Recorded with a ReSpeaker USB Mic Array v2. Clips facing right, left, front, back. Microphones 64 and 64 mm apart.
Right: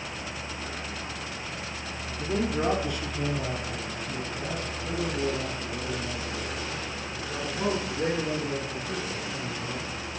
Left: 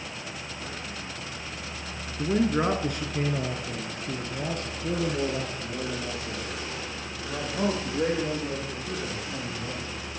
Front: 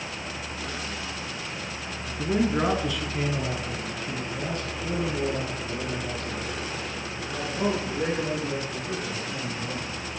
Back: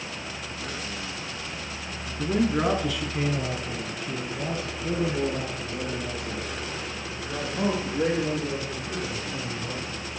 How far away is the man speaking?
About 1.4 m.